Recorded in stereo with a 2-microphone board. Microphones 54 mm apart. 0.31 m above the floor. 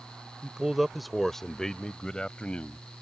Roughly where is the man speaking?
Centre.